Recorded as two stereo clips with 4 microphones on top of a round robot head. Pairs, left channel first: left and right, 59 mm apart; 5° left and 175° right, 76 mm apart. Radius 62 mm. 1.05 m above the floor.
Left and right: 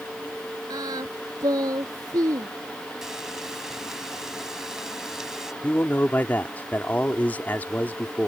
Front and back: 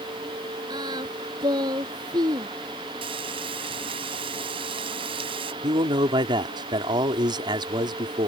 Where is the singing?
130° right.